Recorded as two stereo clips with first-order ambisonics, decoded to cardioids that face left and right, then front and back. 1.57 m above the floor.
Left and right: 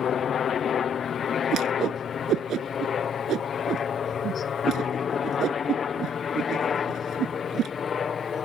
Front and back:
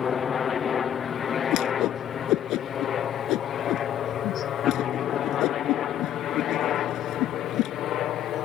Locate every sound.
0.0 s a helicopter: 50° left; by 8.4 s 30° left
1.5 s a whoosh: 40° right